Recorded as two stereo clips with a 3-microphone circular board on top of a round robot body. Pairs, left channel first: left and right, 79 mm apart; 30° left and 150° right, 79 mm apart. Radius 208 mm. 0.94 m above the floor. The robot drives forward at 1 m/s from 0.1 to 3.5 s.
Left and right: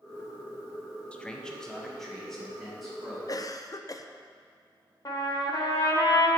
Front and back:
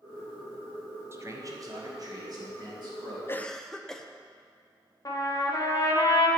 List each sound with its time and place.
1.1 s a man speaking: 160° left, 0.7 m; by 3.2 s 175° left, 2.5 m
3.3 s a cough: 75° left, 0.6 m; by 4.1 s 115° left, 0.6 m
5.0 s a trumpet: 70° left, 1.1 m